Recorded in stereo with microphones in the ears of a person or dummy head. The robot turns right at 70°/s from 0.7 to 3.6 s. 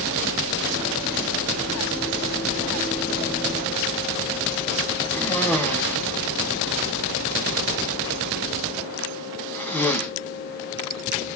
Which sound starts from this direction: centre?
A cough, at 5.1 s.